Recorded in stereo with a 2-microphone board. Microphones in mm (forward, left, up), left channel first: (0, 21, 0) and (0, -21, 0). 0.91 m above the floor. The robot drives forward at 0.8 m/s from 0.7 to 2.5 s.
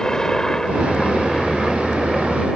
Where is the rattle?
I don't hear a rattle.